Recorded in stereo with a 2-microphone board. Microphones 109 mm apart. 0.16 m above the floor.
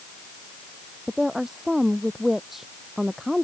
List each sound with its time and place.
1.1 s a woman speaking: centre (ahead or behind)